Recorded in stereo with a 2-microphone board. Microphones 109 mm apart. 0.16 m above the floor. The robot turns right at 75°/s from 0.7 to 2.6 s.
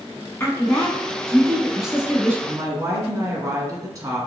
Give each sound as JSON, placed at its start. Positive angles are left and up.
{"t": 0.4, "sound": "a woman speaking", "side_deg": 25, "distance_m": 1.1}
{"t": 2.5, "sound": "a woman speaking", "side_deg": -30, "distance_m": 1.3}